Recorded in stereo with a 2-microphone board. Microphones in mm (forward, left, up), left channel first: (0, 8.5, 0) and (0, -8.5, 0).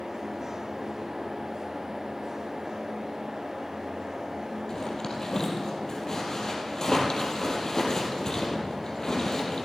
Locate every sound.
4.7 s a zipper: 35° left (ahead or behind), 2 m